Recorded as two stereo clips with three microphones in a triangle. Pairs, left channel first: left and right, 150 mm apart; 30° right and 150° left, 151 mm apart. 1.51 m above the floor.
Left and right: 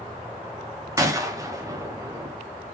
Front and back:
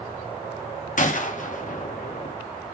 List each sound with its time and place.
1.0 s a gunshot: 25° right, 0.9 m